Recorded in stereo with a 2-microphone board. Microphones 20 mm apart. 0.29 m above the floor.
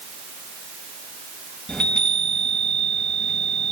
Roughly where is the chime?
Left.